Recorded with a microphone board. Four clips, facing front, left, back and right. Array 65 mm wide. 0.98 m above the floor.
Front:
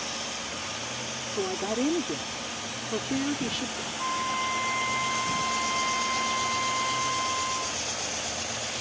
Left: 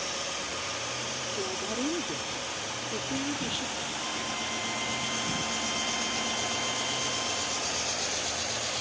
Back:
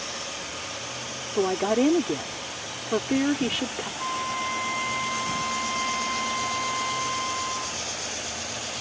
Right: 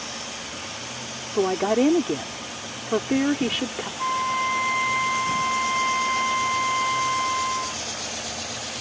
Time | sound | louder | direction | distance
1.3 | a woman speaking | right 15 dB, back 7 dB | 115° right | ?
4.0 | a flute | right 16 dB, front 1 dB | 90° right | ?